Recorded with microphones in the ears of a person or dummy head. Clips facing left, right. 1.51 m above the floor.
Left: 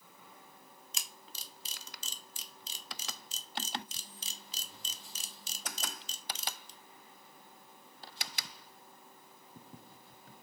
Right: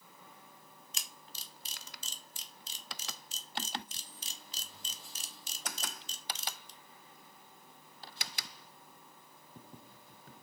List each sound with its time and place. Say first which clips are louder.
0.9 s a camera shutter: left 2 dB; 65° left (ahead or behind), 0.5 m